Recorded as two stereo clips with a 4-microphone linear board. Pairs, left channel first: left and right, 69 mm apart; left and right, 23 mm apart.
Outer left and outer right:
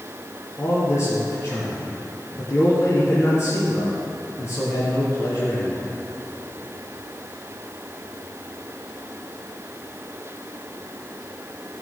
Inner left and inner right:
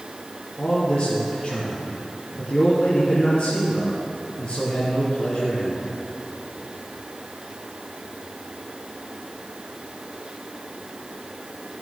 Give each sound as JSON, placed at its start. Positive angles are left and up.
{"t": 0.6, "sound": "a man speaking", "side_deg": 45, "distance_m": 2.5}